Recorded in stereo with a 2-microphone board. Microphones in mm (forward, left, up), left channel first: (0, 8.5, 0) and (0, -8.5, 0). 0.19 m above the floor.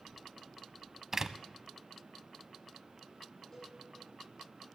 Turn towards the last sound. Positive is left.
turn(degrees=25)  # may be behind; listen again after turning